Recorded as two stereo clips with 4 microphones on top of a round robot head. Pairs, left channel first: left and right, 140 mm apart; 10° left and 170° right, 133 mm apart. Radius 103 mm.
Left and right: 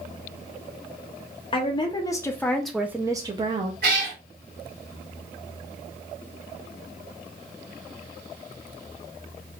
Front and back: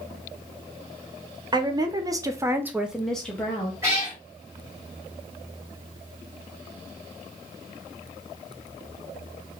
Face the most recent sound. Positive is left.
turn(degrees=-95)